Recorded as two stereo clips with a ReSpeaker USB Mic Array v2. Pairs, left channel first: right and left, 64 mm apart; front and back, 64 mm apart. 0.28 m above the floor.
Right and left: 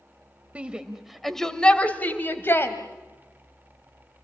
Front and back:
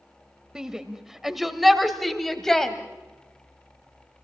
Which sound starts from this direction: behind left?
A shout, at 0.6 s.